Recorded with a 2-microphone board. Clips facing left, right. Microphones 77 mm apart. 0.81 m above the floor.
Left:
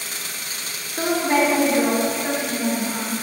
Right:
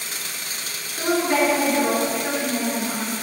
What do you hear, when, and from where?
1.0 s a woman speaking: 45° left (ahead or behind), 2.5 m; by 3.1 s centre (ahead or behind), 2.5 m